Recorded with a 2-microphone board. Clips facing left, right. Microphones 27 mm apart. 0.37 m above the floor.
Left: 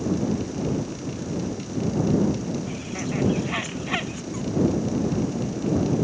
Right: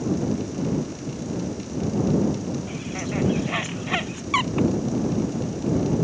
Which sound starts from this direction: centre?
A bird, at 2.7 s.